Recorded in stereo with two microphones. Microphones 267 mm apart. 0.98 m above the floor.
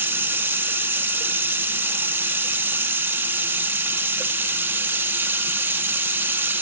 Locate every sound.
0.0 s running water: 10° right (ahead or behind), 1.1 m